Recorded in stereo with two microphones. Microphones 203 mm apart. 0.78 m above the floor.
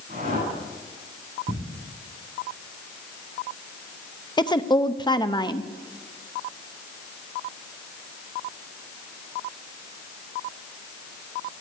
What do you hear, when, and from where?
0.1 s a whoosh: 50° right (ahead or behind), 8 m
1.5 s ticking: 45° right (ahead or behind), 7 m
4.4 s a woman speaking: 20° left (ahead or behind), 0.7 m